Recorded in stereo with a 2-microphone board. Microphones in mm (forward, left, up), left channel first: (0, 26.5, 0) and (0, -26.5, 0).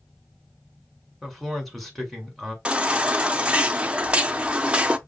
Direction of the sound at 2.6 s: 20° right (ahead or behind).